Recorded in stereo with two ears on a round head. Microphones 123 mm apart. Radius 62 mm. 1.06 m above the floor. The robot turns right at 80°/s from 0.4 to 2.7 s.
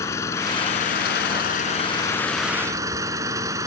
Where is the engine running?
20° left; by 3.7 s 155° right.